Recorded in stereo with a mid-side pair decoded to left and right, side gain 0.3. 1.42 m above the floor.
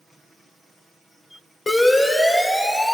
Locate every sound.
1.7 s a siren: 40° left, 6 m